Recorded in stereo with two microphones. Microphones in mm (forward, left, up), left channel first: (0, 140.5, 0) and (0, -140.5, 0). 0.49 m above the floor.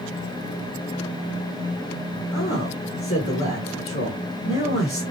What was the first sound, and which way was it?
A man speaking, 50° left (ahead or behind).